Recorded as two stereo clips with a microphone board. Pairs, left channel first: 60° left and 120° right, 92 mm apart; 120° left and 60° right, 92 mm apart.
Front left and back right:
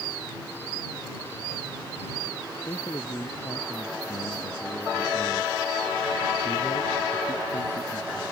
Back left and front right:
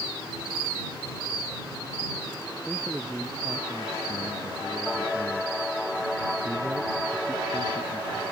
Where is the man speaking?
20° left.